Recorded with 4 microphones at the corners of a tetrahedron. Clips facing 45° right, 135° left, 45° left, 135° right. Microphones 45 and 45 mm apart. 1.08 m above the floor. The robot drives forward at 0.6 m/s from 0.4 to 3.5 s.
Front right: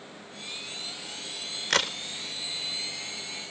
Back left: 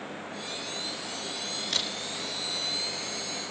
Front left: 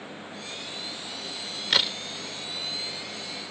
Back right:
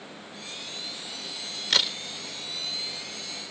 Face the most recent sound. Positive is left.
turn(degrees=-95)